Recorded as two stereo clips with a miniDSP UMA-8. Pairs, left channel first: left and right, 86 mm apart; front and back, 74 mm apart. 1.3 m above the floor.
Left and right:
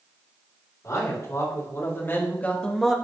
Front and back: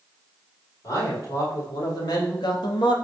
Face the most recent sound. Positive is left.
turn(degrees=-5)